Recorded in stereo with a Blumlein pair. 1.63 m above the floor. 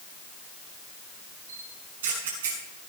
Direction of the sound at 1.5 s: 60° right.